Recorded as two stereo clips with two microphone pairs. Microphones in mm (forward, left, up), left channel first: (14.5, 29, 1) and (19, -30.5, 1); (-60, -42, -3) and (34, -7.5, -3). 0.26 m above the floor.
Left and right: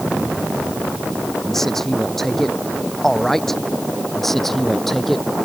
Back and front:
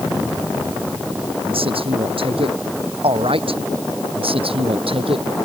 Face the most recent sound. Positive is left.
turn(degrees=10)